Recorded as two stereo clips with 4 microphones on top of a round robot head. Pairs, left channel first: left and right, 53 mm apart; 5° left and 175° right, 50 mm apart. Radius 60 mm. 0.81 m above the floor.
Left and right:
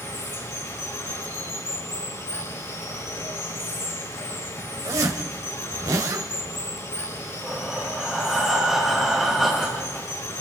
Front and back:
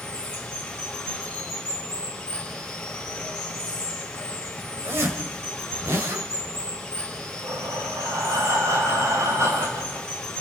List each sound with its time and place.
0.0 s running water: 80° left, 7 m
4.8 s a zipper: 125° right, 2 m
7.4 s breathing: 175° right, 4.5 m